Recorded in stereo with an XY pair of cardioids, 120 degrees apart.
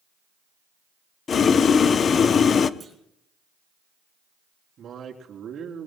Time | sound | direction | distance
1.3 | boiling | 45° left | 0.6 m
2.8 | a clunk | 25° right | 4.5 m
4.8 | a man speaking | 45° right | 3.5 m